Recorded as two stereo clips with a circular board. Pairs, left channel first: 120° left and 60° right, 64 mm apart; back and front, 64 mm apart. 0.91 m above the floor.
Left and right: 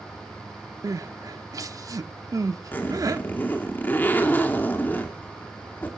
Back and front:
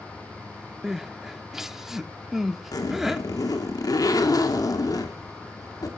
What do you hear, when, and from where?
0.8 s crying: 85° right, 0.8 m
2.7 s a zipper: straight behind, 2.5 m